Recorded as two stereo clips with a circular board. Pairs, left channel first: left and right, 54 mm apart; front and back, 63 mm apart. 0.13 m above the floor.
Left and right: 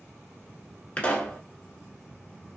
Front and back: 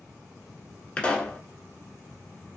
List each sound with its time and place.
1.0 s a pop: 50° left, 1.0 m